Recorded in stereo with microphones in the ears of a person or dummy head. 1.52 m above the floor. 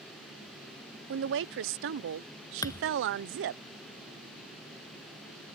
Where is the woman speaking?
65° right (ahead or behind).